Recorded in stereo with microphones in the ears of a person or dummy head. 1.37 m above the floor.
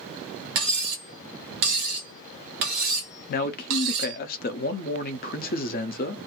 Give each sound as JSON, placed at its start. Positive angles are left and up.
{"t": 0.6, "sound": "cutlery clinking", "side_deg": -55, "distance_m": 0.8}
{"t": 3.3, "sound": "a man speaking", "side_deg": 40, "distance_m": 0.6}